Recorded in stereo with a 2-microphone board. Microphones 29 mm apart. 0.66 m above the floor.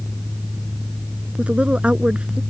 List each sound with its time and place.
1.4 s a woman speaking: 40° right (ahead or behind); by 2.4 s 35° right (ahead or behind)